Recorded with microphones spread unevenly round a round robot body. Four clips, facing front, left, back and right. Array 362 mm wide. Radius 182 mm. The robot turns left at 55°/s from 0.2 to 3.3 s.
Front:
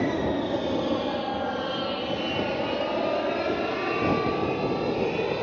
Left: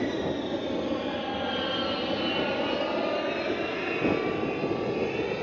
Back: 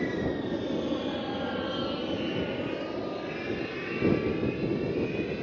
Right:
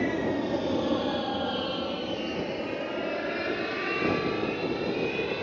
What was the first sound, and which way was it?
An aircraft, 15° right.